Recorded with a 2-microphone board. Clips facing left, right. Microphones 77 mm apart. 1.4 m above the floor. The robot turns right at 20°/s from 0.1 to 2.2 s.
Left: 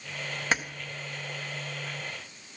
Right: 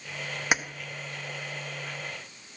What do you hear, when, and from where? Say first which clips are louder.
0.5 s keys jangling: right 1 dB; 15° right (ahead or behind), 0.6 m